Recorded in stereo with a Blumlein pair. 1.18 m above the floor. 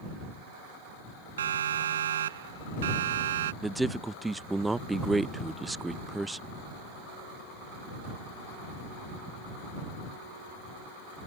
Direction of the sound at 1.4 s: 65° right.